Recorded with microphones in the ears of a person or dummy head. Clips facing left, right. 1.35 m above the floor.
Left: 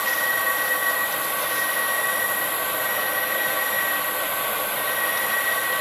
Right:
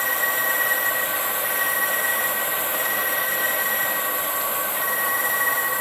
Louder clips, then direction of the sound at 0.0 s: Even; 50° right (ahead or behind).